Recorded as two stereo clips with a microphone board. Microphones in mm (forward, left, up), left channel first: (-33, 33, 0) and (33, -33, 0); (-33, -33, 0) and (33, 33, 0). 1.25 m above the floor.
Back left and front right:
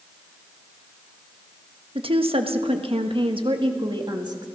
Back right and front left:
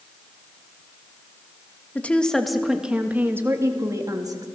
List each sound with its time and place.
1.9 s a woman speaking: 60° right, 1.4 m; by 4.5 s 5° right, 2 m